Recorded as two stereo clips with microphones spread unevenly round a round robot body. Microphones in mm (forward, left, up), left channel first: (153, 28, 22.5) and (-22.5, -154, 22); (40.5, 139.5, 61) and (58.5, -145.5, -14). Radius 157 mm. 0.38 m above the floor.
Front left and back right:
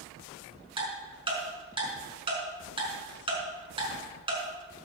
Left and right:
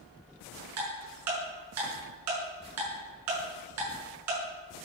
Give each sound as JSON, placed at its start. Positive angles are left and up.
{"t": 0.8, "sound": "ticking", "azimuth_deg": -65, "distance_m": 6.0}